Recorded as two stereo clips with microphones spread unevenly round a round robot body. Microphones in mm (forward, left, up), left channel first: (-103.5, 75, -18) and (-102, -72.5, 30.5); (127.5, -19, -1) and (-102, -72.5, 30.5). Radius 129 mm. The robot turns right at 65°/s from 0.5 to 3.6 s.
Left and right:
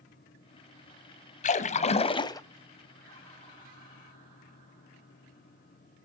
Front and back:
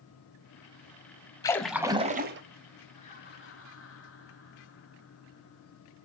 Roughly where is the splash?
Left.